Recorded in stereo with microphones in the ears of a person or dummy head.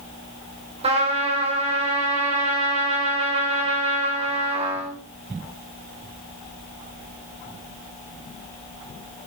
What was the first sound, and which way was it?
A trumpet, 30° right (ahead or behind).